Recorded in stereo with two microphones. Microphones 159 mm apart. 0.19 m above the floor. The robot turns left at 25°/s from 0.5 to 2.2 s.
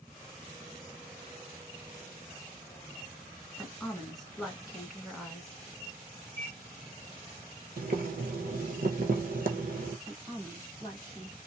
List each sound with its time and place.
3.6 s a woman speaking: centre (ahead or behind), 1.6 m
6.4 s a microwave: 30° right (ahead or behind), 1.4 m
7.8 s boiling: 65° right (ahead or behind), 0.8 m
10.1 s a woman speaking: 10° right (ahead or behind), 1.6 m